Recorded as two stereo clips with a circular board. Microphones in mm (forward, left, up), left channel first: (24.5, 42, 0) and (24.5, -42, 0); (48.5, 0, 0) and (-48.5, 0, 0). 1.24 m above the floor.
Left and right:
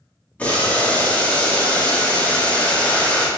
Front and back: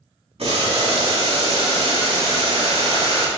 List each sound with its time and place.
0.4 s boiling: 165° left, 1.9 m